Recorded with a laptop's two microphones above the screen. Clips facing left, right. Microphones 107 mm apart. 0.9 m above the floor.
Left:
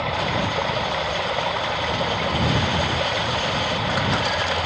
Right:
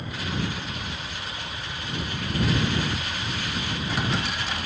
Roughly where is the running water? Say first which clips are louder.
Left 8 dB; left.